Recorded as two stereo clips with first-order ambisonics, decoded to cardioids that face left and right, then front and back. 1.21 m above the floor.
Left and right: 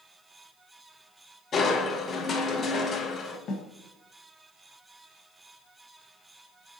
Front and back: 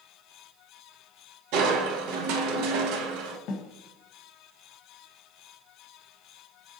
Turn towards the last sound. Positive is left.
turn(degrees=35)